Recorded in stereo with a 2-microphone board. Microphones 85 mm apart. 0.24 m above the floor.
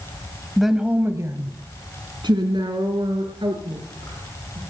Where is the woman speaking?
5° left (ahead or behind), 1.1 m; by 4.6 s 75° right (ahead or behind), 5 m.